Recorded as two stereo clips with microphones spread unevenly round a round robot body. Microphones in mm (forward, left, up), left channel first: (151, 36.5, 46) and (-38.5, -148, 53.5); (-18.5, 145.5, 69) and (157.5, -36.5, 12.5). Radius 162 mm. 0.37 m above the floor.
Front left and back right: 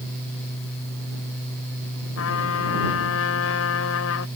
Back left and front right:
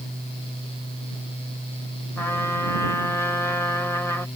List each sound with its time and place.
2.2 s a trumpet: 45° left